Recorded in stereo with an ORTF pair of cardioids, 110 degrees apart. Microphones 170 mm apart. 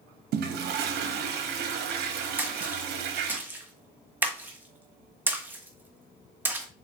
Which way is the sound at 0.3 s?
70° right.